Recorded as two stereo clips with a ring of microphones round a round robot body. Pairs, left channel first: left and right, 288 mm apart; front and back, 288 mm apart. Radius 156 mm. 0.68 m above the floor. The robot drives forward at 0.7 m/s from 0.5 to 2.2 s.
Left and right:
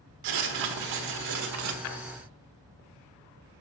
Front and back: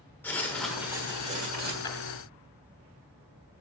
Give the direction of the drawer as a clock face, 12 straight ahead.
9 o'clock.